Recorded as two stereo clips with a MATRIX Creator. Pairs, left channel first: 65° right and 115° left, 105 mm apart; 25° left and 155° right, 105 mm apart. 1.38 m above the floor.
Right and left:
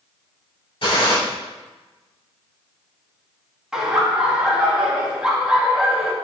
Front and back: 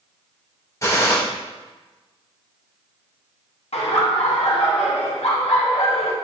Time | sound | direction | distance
0.8 | a gunshot | 35° right | 2.5 m
3.7 | laughter | 30° left | 2.0 m